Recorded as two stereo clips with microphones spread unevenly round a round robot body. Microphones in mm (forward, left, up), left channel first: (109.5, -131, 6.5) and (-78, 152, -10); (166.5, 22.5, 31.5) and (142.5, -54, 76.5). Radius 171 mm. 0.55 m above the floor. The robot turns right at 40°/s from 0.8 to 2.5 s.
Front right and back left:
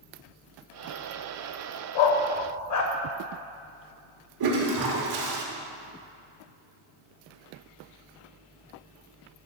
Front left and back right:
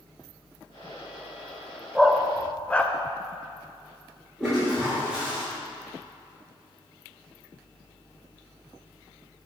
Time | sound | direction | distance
1.9 | a dog barking | 35° right | 0.6 m
4.4 | a toilet flushing | 150° left | 1.0 m